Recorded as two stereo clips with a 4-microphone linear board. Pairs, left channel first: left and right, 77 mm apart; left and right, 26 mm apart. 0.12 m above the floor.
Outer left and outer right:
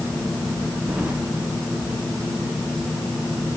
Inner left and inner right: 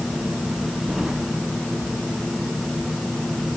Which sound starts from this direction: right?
Keys jangling, at 0.9 s.